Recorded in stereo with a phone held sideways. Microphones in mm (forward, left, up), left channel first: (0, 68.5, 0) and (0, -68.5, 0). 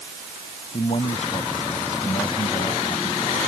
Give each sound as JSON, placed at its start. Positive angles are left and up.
{"t": 0.7, "sound": "a man speaking", "side_deg": 50}